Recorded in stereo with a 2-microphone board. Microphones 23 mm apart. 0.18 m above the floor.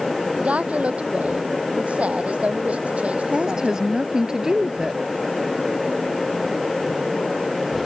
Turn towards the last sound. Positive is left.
turn(degrees=-30)  # may be behind; listen again after turning